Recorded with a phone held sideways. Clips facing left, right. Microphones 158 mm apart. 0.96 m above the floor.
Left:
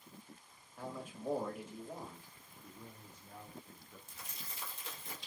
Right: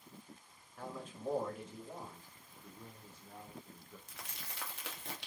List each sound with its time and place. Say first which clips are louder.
0.8 s a man speaking: left 1 dB; 10° left (ahead or behind), 1.8 m
2.6 s a man speaking: even; 5° right (ahead or behind), 0.8 m
4.1 s crumpling: right 1 dB; 80° right, 1.2 m